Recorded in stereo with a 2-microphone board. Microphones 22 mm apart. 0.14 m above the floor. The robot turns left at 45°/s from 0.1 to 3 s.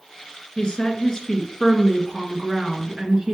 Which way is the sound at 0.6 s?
70° left.